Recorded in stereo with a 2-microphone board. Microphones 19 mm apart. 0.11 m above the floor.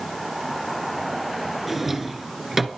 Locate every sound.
1.7 s a drawer: 15° right (ahead or behind), 0.8 m